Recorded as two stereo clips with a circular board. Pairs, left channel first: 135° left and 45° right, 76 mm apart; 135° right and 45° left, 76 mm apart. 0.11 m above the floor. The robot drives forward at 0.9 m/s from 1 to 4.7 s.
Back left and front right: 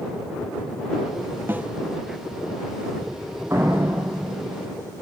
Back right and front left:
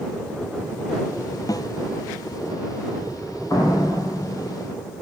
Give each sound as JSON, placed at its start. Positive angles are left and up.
{"t": 1.5, "sound": "a snare drum", "azimuth_deg": -105, "distance_m": 0.8}
{"t": 3.5, "sound": "a door slam", "azimuth_deg": -100, "distance_m": 3.0}